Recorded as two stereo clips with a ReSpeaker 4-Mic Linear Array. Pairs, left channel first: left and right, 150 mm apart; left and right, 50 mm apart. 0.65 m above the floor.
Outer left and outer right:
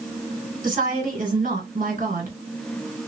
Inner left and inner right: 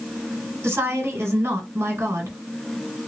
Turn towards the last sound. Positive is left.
turn(degrees=-70)  # may be behind; listen again after turning